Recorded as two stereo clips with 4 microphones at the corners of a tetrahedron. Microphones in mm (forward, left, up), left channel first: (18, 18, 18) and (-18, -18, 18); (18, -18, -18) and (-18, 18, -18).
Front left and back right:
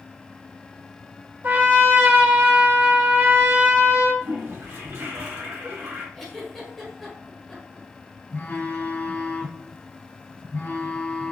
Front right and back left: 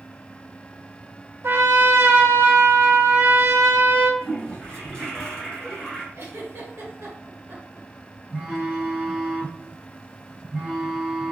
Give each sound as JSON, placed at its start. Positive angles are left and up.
{"t": 1.4, "sound": "a trumpet", "azimuth_deg": 175, "distance_m": 0.7}
{"t": 4.2, "sound": "a toilet flushing", "azimuth_deg": -125, "distance_m": 2.0}
{"t": 6.2, "sound": "a giggle", "azimuth_deg": 135, "distance_m": 1.5}
{"t": 8.3, "sound": "a phone buzzing", "azimuth_deg": 55, "distance_m": 1.7}